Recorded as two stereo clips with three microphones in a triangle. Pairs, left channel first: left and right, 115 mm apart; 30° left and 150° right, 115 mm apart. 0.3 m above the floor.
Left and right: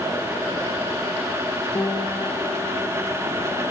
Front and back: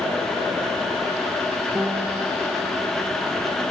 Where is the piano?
135° left, 1.2 m.